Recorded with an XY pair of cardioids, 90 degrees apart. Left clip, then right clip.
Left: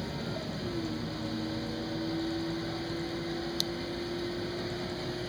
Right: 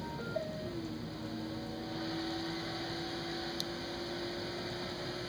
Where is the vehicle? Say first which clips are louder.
Left 1 dB; 35° left.